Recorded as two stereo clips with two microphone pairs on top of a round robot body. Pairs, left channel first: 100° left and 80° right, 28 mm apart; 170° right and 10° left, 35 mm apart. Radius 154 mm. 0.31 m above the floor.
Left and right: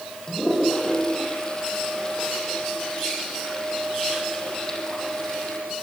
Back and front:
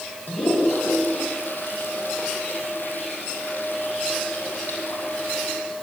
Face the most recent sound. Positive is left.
turn(degrees=165)